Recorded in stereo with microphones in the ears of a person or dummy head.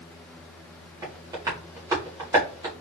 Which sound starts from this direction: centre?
Tapping, at 1.0 s.